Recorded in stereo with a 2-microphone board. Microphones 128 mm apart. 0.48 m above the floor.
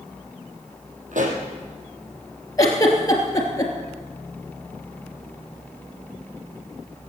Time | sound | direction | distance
1.1 | a pop | 85° right | 4 m
2.6 | a giggle | 30° left (ahead or behind) | 3 m